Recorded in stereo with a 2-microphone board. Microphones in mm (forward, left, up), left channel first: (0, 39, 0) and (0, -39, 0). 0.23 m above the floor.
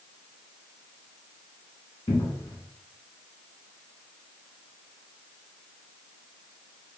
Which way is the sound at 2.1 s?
70° left (ahead or behind).